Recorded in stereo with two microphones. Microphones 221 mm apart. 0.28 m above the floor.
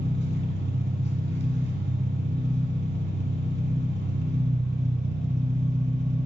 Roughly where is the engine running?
Right.